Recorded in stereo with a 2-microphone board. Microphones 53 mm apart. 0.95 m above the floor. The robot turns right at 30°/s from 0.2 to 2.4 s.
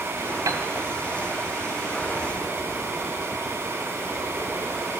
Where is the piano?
75° right (ahead or behind), 2.5 m; by 0.6 s 80° right, 2.5 m.